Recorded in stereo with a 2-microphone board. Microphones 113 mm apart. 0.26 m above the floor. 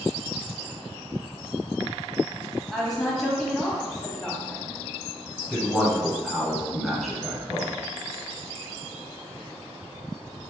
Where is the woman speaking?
Centre (ahead or behind), 1.3 m.